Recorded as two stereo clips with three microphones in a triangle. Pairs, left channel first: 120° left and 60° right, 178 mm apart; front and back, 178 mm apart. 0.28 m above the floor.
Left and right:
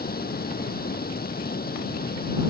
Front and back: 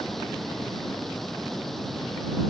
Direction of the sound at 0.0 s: 90° left.